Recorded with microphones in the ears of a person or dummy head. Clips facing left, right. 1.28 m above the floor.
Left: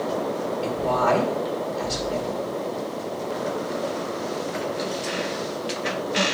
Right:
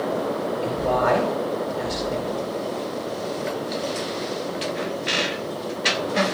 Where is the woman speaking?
10° right (ahead or behind), 4.5 m.